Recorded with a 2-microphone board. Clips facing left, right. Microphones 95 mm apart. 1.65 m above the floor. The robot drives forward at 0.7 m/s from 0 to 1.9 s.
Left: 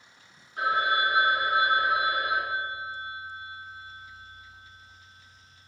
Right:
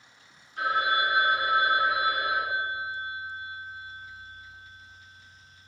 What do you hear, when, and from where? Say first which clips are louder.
0.6 s a phone ringing: left 1 dB; 25° left (ahead or behind), 0.9 m; by 5.7 s 15° left (ahead or behind), 1.7 m